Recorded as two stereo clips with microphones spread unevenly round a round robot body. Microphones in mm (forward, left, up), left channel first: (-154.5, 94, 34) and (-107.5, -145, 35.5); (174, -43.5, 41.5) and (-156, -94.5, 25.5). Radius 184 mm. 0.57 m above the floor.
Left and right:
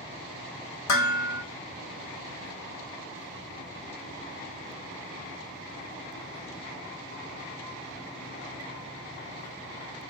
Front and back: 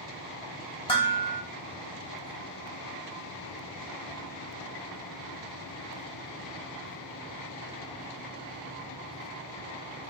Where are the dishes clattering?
85° left, 0.8 m.